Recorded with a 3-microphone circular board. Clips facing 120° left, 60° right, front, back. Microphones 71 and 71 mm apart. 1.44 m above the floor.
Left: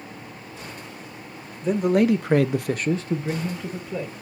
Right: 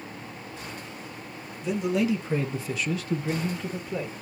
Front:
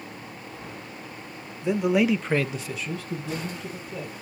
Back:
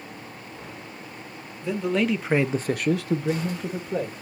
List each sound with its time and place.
1.6 s a man speaking: 70° left, 1.3 m; by 4.1 s 155° right, 1.9 m